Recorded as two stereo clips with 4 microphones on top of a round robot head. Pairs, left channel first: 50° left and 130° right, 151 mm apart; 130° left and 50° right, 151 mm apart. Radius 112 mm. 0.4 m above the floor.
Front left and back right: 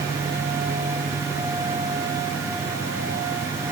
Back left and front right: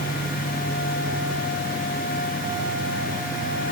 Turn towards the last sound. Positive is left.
No sound to turn to.